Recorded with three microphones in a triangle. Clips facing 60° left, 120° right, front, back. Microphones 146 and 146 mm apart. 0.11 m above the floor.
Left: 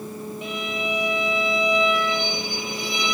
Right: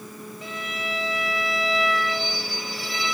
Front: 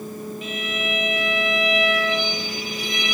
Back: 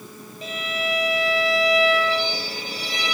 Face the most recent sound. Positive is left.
turn(degrees=130)